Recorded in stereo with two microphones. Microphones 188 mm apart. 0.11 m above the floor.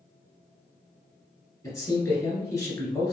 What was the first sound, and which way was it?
A man speaking, 15° left (ahead or behind).